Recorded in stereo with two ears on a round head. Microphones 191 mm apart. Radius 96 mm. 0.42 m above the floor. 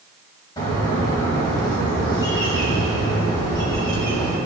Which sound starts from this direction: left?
A bird, at 0.6 s.